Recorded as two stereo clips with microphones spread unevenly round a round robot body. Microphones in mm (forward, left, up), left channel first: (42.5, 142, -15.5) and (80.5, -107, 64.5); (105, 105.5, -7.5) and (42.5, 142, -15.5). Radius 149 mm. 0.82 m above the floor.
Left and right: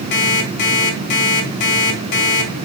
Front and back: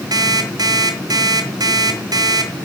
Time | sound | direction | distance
0.1 | an alarm clock | 115° left | 3.5 m